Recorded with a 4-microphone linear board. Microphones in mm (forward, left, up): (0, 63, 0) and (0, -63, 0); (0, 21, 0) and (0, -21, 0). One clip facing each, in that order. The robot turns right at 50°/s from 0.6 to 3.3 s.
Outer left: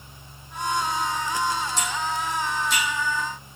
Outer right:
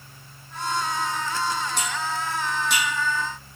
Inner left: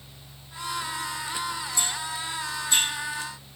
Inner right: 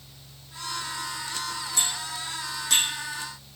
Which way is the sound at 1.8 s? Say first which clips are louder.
Outer left 1 dB, inner left 1 dB; 60° right (ahead or behind).